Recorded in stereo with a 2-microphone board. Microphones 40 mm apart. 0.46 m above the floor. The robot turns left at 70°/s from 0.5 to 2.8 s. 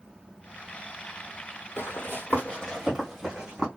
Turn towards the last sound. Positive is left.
turn(degrees=-20)  # may be behind; listen again after turning